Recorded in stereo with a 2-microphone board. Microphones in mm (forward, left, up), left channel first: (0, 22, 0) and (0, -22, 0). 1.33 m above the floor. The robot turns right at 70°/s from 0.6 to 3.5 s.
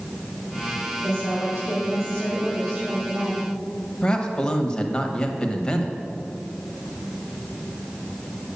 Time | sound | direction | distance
1.0 | a woman speaking | 70° left | 3.5 m
4.0 | a man speaking | 20° left (ahead or behind) | 1.1 m